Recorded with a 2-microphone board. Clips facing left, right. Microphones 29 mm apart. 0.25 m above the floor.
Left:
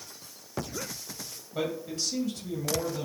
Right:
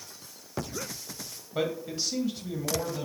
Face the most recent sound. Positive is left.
turn(degrees=-10)  # may be behind; listen again after turning